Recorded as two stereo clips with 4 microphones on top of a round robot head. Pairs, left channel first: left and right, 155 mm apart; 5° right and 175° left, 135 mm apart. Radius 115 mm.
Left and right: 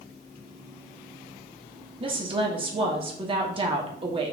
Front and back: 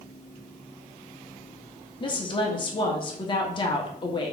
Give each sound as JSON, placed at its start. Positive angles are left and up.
{"t": 2.0, "sound": "a woman speaking", "azimuth_deg": -45, "distance_m": 0.9}